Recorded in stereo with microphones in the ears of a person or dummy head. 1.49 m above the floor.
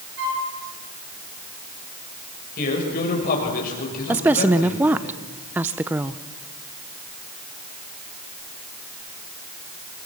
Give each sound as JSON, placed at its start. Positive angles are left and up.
{"t": 0.2, "sound": "a flute", "side_deg": -60, "distance_m": 4.0}
{"t": 2.6, "sound": "a man speaking", "side_deg": 55, "distance_m": 6.0}
{"t": 4.1, "sound": "a woman speaking", "side_deg": -5, "distance_m": 0.7}